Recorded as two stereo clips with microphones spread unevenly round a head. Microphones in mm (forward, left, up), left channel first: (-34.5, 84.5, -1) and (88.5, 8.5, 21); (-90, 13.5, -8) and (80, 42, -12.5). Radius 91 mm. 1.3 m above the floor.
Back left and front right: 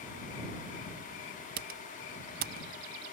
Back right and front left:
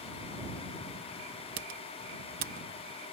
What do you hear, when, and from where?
1.6 s typing on a keyboard: 25° right